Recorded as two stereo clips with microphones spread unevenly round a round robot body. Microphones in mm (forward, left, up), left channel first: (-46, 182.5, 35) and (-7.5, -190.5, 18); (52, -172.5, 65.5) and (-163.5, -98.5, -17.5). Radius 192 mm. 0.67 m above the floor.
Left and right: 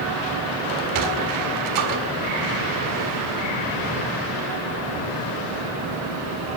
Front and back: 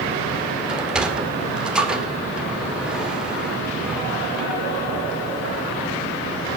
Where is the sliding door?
120° right, 2 m.